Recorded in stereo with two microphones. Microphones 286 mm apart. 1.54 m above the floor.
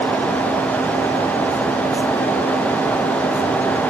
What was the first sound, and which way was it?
Only background noise.